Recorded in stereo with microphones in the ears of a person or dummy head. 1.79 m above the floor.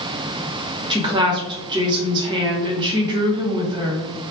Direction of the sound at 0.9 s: 30° right (ahead or behind).